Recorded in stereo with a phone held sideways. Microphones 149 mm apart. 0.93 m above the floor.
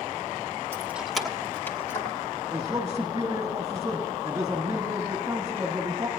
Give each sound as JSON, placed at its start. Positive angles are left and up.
{"t": 0.7, "sound": "keys jangling", "side_deg": -15, "distance_m": 1.1}
{"t": 2.5, "sound": "a man speaking", "side_deg": -25, "distance_m": 1.3}